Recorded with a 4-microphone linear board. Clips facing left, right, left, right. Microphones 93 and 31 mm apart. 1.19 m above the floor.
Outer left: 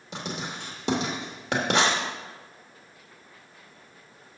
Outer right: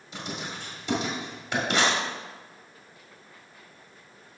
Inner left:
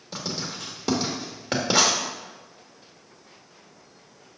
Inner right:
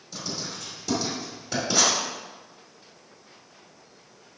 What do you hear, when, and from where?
0.1 s writing: 65° left (ahead or behind), 2 m